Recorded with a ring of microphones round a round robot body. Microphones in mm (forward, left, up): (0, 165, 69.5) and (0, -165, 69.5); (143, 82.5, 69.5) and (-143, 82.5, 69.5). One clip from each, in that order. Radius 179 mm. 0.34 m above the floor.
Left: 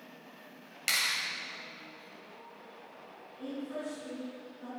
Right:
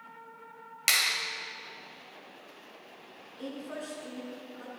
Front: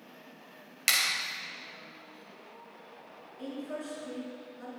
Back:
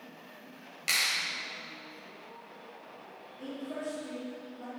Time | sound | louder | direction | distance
0.9 | a clap | right 4 dB, front 1 dB | 30° right | 1.9 m
3.4 | a woman speaking | even, even | 50° right | 5.5 m